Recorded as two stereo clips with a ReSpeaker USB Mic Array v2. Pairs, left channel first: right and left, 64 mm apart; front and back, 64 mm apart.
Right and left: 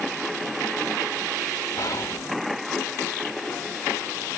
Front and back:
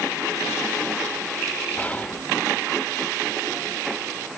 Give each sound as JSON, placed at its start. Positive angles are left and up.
{"t": 1.8, "sound": "whispering", "azimuth_deg": -65, "distance_m": 0.9}